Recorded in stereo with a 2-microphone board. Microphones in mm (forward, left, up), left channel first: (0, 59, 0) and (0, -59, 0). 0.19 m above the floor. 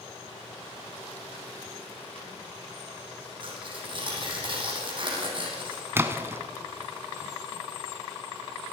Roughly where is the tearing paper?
Right.